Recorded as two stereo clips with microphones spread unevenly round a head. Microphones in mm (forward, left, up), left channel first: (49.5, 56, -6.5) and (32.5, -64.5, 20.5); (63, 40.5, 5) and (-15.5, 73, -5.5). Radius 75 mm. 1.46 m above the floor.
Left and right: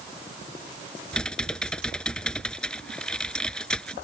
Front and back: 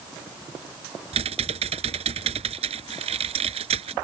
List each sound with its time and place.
1.1 s typing on a keyboard: 170° left